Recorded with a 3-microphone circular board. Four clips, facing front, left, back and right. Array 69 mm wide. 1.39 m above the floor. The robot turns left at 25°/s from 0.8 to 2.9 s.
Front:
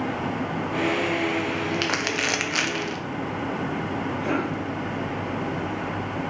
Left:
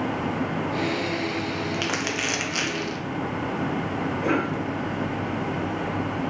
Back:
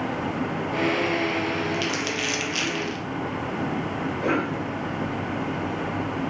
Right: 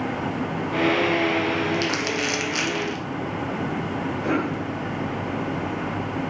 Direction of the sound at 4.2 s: 160° left.